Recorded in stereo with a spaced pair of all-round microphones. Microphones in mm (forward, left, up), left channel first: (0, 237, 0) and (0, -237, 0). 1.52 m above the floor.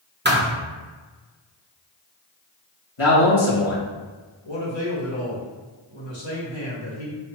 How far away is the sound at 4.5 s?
About 1.6 m.